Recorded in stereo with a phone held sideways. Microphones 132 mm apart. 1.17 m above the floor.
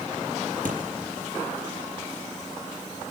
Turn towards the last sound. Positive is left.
turn(degrees=-75)  # may be behind; listen again after turning